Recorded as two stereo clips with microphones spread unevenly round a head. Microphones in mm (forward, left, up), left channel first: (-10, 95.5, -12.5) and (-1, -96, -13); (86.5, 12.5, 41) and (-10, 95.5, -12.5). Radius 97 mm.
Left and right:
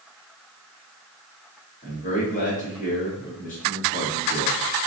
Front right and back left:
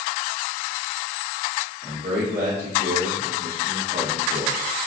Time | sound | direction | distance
1.8 | a man speaking | 145° left | 2.0 m